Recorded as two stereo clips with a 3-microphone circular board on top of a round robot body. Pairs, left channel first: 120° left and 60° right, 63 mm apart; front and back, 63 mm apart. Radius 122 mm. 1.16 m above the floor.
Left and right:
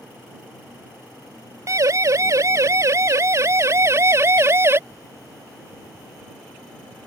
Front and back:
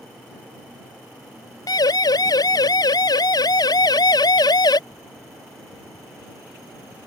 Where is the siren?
20° right; by 4.8 s 10° right.